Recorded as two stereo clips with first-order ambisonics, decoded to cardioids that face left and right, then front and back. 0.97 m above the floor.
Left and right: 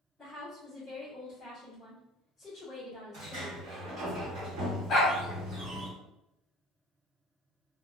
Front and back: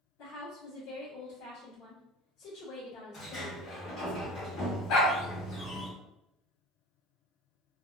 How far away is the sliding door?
About 1.2 m.